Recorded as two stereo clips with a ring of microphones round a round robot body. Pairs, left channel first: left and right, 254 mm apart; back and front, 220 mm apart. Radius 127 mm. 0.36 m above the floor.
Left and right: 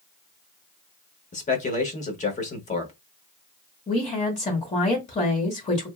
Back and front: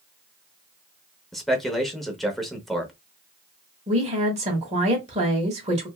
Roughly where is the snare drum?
No snare drum in this recording.